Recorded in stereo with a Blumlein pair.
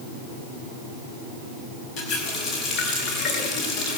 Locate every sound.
2.0 s a running tap: 30° left, 4.5 m